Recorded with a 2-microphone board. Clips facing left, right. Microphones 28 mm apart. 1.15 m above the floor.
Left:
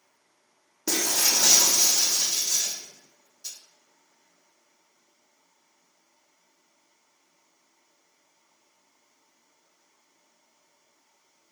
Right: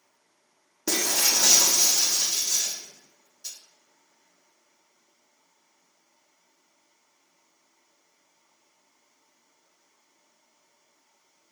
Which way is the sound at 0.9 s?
10° right (ahead or behind).